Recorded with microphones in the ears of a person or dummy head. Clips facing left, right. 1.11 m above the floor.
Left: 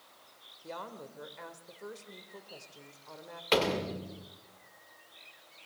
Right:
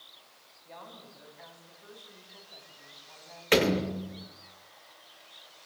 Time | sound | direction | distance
0.6 | a woman speaking | 80° left | 3.5 m
3.5 | a door slam | 15° right (ahead or behind) | 2.5 m